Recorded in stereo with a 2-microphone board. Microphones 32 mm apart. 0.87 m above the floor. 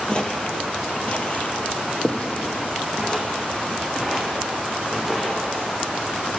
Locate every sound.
0.1 s footsteps: 25° left (ahead or behind), 1.2 m; by 5.4 s 20° left (ahead or behind), 4.5 m